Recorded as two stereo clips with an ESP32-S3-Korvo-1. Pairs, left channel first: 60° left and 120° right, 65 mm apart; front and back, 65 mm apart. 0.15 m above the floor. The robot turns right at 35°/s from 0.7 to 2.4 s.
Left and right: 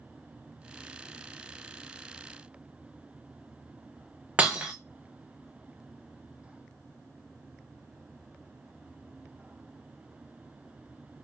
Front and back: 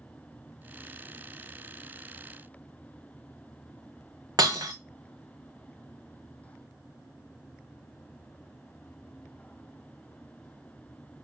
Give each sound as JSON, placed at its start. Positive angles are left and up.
{"t": 4.4, "sound": "breaking glass", "azimuth_deg": 170, "distance_m": 1.0}